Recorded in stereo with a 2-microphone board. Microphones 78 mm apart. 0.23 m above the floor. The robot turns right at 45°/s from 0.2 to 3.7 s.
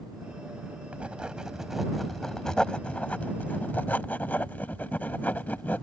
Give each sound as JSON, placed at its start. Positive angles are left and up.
{"t": 0.9, "sound": "writing", "side_deg": -15}